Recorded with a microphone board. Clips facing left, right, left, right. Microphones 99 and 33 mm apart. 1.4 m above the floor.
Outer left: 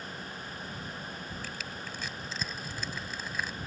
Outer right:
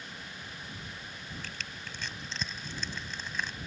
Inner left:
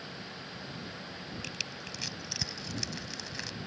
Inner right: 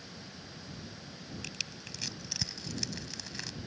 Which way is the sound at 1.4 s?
5° left (ahead or behind).